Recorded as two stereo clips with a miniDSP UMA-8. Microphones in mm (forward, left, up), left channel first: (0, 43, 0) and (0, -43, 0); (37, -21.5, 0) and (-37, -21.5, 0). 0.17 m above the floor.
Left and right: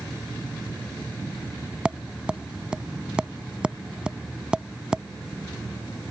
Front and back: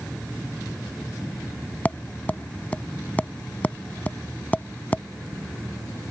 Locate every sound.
1.9 s tapping: 30° right